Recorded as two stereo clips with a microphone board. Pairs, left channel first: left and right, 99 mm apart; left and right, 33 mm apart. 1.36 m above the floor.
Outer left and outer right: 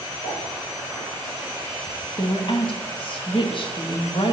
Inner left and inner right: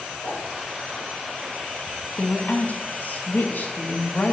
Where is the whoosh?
75° left (ahead or behind), 6 m.